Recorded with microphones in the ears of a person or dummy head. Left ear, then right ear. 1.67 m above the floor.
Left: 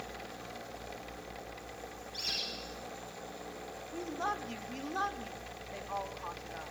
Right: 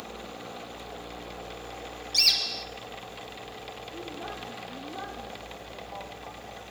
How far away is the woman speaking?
About 3 m.